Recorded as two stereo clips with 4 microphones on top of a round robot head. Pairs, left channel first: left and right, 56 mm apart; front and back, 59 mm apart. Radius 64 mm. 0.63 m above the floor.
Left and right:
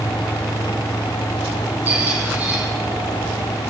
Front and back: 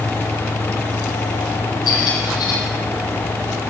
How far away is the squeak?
About 6.5 m.